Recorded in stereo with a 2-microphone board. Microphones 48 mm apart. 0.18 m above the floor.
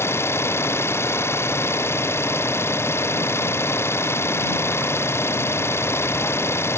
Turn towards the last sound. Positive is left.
turn(degrees=75)  # may be behind; listen again after turning